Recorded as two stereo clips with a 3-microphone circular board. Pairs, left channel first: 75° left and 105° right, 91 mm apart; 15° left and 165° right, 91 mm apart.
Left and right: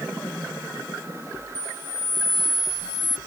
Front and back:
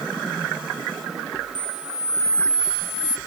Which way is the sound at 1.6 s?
30° left.